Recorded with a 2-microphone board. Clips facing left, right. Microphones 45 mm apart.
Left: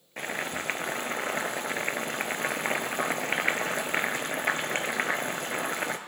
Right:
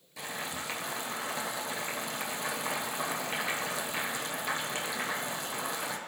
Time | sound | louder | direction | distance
0.2 | boiling | left 5 dB | 50° left (ahead or behind) | 1.1 m